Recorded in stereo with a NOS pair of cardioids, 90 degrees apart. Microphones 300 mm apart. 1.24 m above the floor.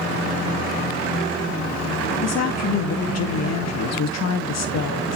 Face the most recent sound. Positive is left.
turn(degrees=60)